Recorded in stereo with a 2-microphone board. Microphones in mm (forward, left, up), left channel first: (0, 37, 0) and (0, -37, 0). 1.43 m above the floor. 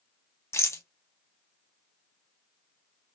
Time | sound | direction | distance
0.5 | a rattle | 40° left (ahead or behind) | 0.6 m